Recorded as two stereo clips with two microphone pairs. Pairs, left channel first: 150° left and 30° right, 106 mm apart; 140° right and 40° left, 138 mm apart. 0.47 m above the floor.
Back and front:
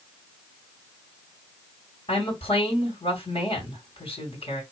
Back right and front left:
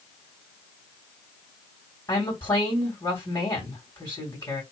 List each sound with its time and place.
2.1 s a woman speaking: 160° left, 2 m